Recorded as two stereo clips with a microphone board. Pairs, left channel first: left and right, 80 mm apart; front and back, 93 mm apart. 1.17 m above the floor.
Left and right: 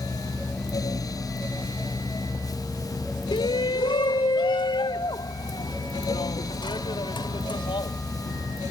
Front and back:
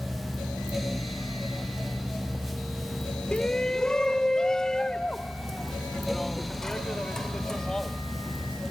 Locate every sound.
3.3 s a shout: 80° left; by 8.0 s 85° left